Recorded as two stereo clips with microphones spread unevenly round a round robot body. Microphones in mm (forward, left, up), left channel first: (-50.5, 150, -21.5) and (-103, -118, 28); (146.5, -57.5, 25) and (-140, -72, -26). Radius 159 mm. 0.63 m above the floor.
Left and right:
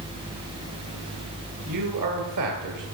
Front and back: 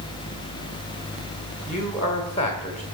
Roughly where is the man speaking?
Ahead right.